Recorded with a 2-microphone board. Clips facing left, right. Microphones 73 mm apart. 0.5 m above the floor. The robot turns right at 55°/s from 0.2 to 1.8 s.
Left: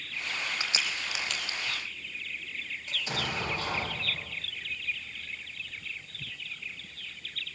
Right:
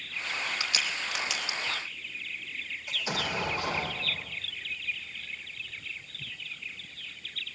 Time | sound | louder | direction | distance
0.6 | a crack | right 1 dB | 35° left (ahead or behind) | 3 m
2.9 | an explosion | right 2 dB | 15° right (ahead or behind) | 9.5 m